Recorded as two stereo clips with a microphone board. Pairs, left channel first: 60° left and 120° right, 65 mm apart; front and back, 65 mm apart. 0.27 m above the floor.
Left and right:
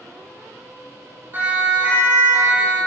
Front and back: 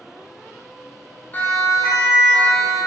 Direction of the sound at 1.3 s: 65° right.